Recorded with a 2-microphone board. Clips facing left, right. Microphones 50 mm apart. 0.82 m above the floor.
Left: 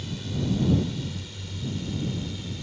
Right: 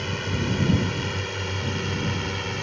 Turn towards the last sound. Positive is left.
turn(degrees=-60)  # may be behind; listen again after turning